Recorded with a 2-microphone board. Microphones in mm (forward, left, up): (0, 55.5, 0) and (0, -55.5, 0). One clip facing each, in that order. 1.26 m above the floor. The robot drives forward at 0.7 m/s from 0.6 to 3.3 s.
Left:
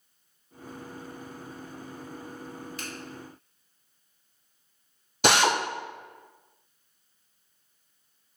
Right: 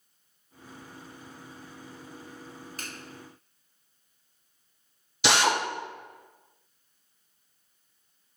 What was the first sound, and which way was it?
A finger snap, 50° right (ahead or behind).